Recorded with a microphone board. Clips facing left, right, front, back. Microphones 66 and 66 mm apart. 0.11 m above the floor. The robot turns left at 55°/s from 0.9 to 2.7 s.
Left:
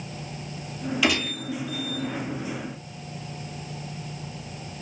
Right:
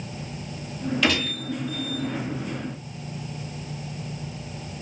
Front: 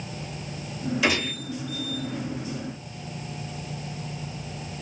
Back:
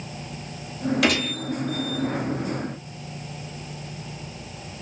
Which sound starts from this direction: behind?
A gunshot, at 1.0 s.